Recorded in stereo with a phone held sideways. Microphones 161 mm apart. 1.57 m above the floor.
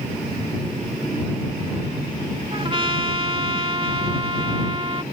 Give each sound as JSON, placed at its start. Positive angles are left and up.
{"t": 2.5, "sound": "a trumpet", "side_deg": -35}